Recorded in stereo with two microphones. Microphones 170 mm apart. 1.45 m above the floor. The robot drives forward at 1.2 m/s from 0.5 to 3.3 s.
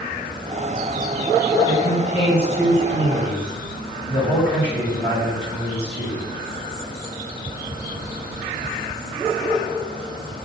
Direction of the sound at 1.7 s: 30° left (ahead or behind).